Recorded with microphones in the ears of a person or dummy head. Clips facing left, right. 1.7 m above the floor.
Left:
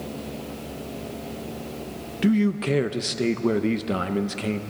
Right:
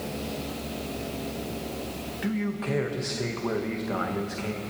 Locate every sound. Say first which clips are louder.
2.2 s a man speaking: left 9 dB; 45° left (ahead or behind), 0.7 m